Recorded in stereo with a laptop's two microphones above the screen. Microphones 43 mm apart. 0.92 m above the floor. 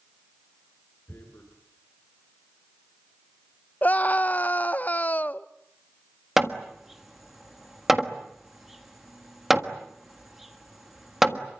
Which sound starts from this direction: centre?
Hammering, at 6.4 s.